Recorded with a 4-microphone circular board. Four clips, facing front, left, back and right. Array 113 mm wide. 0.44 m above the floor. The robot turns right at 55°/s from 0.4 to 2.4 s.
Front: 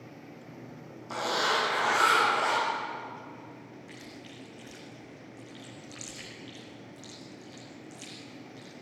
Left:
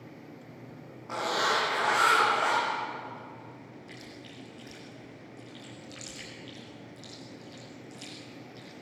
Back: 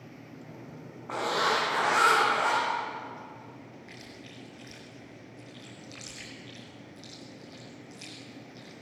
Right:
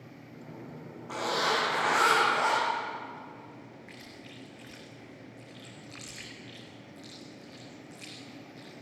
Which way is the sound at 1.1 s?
170° left.